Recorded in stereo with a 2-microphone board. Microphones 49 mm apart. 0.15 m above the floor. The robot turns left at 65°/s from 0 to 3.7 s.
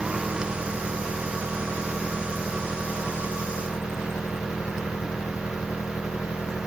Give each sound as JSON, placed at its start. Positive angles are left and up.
{"t": 0.0, "sound": "an engine running", "azimuth_deg": -20}